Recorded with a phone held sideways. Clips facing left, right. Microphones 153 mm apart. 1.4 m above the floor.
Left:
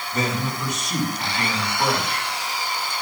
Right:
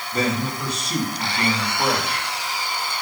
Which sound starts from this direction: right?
A man speaking, at 0.1 s.